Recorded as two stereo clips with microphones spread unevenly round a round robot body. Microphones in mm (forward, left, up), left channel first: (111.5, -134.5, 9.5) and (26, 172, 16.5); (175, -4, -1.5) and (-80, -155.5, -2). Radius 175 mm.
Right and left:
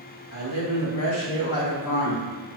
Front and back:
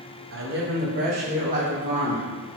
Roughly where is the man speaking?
Behind right.